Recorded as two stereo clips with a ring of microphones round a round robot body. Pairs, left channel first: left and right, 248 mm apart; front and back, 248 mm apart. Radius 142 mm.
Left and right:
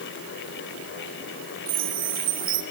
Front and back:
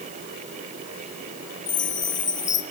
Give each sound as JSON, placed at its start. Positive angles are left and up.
{"t": 1.7, "sound": "a chime", "azimuth_deg": -45, "distance_m": 2.5}